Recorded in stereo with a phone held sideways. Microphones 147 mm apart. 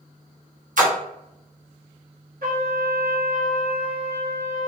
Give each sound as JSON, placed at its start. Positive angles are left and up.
{"t": 0.8, "sound": "a splash", "side_deg": -65, "distance_m": 0.8}
{"t": 2.4, "sound": "a trumpet", "side_deg": -85, "distance_m": 1.3}